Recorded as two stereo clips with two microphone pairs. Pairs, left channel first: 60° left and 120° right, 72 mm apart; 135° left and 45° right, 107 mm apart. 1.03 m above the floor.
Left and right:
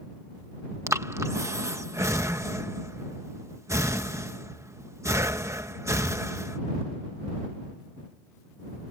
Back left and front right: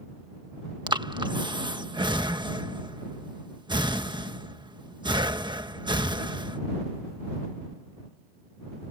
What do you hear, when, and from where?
0.9 s breathing: 80° right